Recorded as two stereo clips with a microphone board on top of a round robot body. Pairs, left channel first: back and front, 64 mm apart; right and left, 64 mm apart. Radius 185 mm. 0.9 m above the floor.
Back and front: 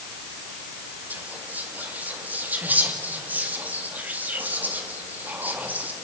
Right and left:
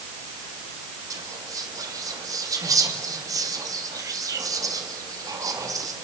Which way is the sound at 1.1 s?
65° left.